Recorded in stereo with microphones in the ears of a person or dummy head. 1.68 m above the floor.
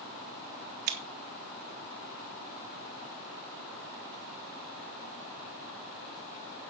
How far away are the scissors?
About 0.8 m.